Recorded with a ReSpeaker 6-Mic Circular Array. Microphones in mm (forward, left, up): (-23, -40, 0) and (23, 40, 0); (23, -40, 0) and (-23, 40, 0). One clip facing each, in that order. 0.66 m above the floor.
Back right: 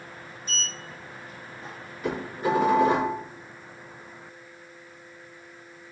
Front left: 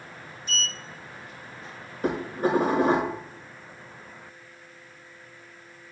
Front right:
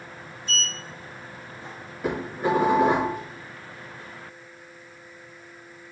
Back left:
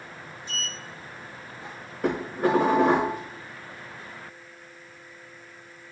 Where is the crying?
No crying in this recording.